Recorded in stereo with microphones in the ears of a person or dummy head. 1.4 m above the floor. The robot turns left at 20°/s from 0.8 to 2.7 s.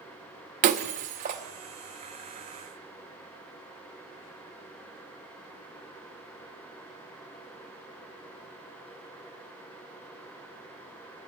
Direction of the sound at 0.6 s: 35° right (ahead or behind).